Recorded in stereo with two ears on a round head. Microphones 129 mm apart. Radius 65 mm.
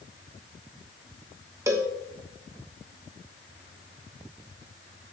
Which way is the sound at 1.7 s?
20° right (ahead or behind).